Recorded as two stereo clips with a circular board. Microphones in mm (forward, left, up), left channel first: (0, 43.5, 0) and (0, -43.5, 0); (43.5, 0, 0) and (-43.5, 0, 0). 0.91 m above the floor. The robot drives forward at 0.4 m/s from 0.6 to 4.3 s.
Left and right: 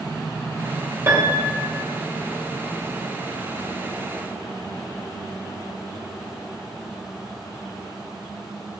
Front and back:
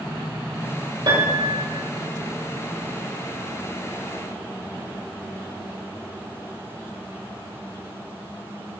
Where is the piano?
150° right, 2 m; by 1.8 s 155° right, 2.5 m.